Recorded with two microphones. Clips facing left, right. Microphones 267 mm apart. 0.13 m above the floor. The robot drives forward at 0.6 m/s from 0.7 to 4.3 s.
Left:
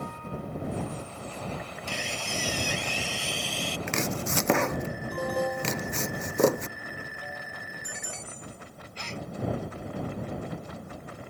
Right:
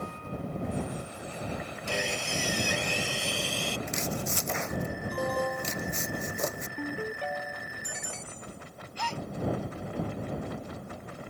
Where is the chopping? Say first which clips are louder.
Left 3 dB; 80° left.